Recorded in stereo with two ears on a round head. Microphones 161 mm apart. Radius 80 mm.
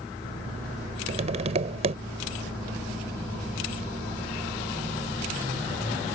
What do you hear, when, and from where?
1.1 s tapping: 40° right (ahead or behind)